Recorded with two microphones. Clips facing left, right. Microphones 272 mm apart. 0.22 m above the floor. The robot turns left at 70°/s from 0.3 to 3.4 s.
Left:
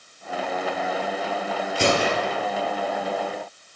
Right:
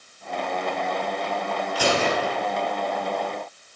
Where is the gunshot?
30° left, 3 m; by 2.4 s 10° right, 3 m.